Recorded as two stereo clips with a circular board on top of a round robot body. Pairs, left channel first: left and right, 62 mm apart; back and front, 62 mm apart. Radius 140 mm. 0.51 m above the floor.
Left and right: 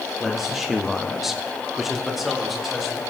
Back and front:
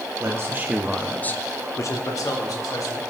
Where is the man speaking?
5° right, 1.5 m; by 3.1 s straight behind, 3.5 m.